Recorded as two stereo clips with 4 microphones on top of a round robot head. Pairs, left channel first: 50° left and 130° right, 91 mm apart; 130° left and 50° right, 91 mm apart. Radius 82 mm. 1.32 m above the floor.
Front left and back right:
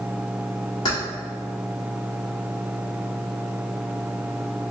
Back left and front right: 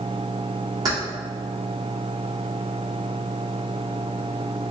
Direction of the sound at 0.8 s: 5° left.